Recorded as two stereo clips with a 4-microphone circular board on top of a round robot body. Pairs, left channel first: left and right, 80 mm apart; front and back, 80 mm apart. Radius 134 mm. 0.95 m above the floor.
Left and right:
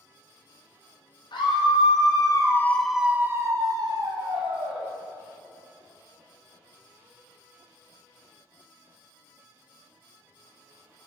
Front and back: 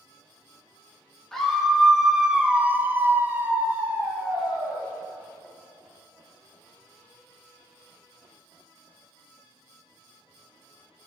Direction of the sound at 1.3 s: 85° left.